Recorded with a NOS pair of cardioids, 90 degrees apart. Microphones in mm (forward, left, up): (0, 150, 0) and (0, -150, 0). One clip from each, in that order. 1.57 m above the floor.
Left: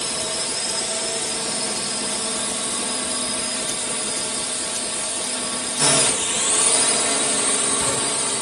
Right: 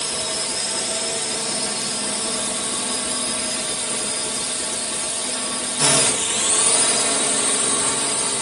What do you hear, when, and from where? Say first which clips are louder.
0.0 s a drone: even; 5° right